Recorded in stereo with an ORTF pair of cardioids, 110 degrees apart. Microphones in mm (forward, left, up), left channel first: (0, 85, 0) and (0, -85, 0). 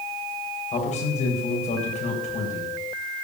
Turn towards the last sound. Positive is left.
turn(degrees=40)